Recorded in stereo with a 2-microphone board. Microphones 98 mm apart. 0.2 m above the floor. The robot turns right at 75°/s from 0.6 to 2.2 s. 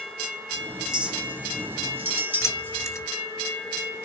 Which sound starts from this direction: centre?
A clink, at 0.8 s.